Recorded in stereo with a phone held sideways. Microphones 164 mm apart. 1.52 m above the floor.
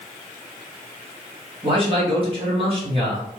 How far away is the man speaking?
About 2.0 m.